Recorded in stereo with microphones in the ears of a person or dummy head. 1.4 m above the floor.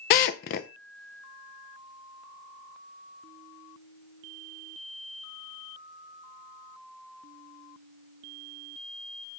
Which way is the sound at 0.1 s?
45° left (ahead or behind).